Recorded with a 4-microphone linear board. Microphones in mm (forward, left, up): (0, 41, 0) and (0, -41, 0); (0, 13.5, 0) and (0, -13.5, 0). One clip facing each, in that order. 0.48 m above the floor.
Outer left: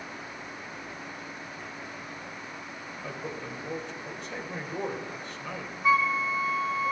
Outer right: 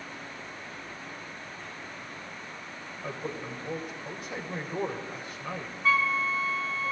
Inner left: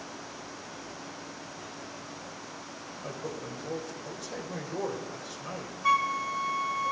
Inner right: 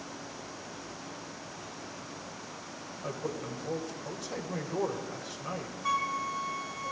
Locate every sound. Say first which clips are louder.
3.0 s a man speaking: outer right 2 dB, inner right 2 dB; 5° right (ahead or behind), 2 m
5.8 s a flute: outer left 2 dB, inner left 5 dB; 20° left (ahead or behind), 0.7 m